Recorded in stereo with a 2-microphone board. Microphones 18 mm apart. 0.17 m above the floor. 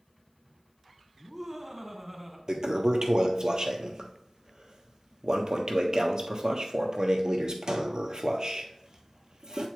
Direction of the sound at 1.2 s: 20° right (ahead or behind).